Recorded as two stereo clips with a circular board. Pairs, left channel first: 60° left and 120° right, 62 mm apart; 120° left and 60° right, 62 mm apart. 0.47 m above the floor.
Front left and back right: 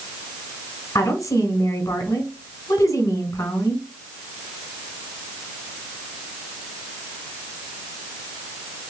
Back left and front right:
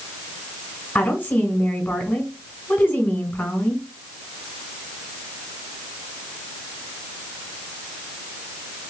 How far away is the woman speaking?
About 1.8 m.